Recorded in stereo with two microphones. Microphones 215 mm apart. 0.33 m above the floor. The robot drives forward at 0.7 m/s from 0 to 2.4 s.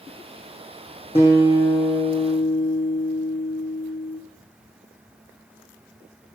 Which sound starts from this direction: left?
A guitar, at 1.1 s.